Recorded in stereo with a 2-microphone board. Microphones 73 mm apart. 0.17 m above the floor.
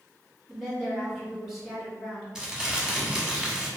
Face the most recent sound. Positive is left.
turn(degrees=-10)  # may be behind; listen again after turning